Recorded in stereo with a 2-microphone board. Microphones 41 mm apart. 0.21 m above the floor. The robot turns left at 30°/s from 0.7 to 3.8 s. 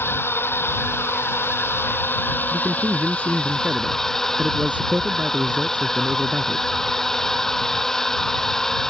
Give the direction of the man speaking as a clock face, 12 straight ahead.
3 o'clock.